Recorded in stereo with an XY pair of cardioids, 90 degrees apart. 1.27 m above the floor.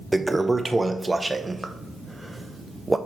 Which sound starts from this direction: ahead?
A toilet flushing, at 0.1 s.